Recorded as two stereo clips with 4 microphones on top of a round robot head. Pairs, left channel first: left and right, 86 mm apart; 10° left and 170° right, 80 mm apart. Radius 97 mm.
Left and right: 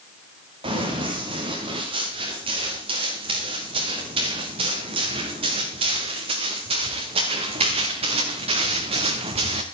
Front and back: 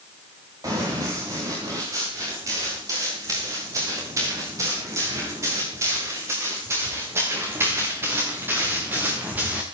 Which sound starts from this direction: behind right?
Running footsteps, at 0.6 s.